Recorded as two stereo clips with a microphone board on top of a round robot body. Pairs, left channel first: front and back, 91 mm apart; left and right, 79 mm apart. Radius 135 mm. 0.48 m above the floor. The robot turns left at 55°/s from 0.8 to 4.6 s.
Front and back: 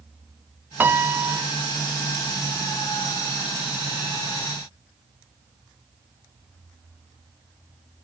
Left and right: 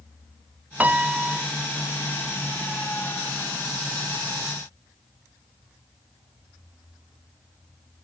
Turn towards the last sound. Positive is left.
turn(degrees=15)